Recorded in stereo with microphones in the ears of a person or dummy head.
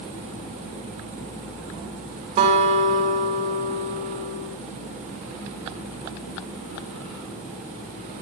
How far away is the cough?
I don't hear a cough.